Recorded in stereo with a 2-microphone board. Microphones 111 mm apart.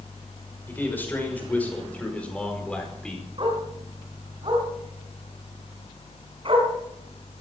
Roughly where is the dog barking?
Right.